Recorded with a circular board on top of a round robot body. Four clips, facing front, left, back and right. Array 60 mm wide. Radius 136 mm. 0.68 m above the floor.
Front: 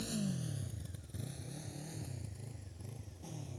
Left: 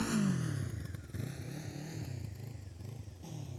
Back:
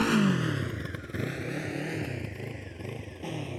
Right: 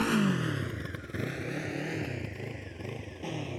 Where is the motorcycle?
155° right; by 3.6 s 135° right.